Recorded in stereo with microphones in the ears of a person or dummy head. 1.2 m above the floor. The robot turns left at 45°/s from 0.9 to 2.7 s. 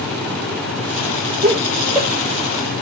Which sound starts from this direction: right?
Laughter, at 1.4 s.